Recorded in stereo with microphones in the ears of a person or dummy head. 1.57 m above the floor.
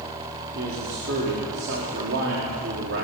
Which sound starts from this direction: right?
A man speaking, at 0.6 s.